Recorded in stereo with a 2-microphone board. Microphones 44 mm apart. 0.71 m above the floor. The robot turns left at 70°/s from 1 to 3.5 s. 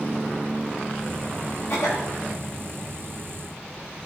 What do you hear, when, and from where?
1.7 s a cough: 80° left, 3 m; by 2.1 s 70° left (ahead or behind), 3 m